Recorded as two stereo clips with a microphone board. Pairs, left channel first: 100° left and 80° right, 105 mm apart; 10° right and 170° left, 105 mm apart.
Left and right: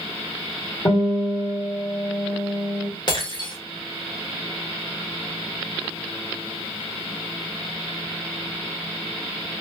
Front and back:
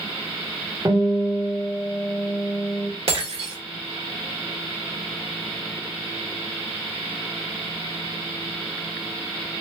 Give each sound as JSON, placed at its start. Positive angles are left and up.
{"t": 0.8, "sound": "a guitar", "azimuth_deg": 115, "distance_m": 1.9}
{"t": 3.1, "sound": "breaking glass", "azimuth_deg": 145, "distance_m": 1.4}